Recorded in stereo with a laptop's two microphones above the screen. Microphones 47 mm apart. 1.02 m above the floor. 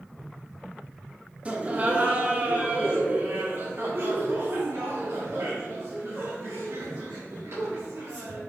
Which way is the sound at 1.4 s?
30° right (ahead or behind).